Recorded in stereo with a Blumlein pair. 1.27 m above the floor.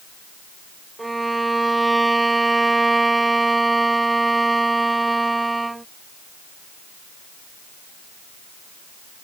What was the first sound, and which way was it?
A violin, 10° right.